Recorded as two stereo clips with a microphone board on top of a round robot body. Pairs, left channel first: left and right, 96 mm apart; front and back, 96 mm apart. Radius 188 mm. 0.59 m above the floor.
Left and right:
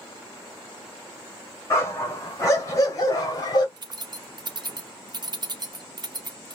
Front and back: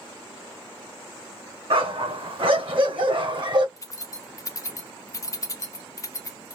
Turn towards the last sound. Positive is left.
turn(degrees=-55)